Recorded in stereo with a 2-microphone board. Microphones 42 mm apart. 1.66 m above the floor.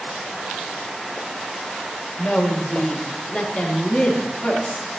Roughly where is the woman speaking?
Left.